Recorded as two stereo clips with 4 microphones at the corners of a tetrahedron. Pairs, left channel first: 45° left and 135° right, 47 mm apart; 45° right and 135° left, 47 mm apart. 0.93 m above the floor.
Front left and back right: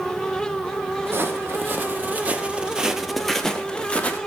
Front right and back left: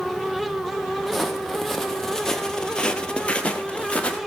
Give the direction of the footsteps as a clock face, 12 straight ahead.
5 o'clock.